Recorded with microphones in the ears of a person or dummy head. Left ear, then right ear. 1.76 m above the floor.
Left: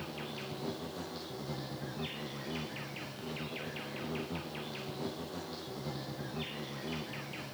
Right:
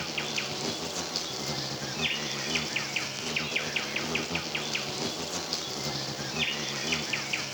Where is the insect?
75° right (ahead or behind), 0.9 m.